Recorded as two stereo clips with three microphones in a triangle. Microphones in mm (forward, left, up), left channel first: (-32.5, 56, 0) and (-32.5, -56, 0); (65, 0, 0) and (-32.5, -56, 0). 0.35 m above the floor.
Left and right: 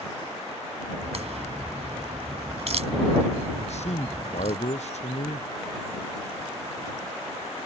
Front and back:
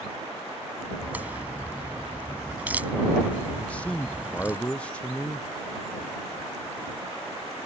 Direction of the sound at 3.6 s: 110° left.